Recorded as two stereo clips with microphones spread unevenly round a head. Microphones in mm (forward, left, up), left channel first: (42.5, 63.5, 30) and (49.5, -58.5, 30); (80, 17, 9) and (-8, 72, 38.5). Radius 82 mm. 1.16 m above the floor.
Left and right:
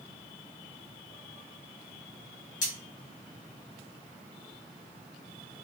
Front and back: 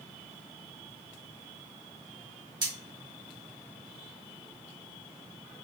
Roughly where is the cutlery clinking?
Left.